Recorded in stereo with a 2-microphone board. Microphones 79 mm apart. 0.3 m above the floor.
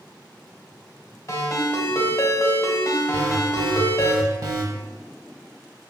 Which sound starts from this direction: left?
A ringtone, at 1.3 s.